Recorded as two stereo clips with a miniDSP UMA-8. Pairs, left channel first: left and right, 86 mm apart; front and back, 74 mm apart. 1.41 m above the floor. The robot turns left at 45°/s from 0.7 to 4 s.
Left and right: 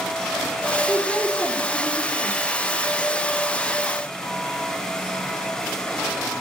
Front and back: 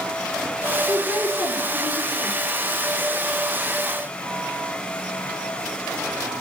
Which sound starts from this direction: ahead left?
A man speaking, at 0.9 s.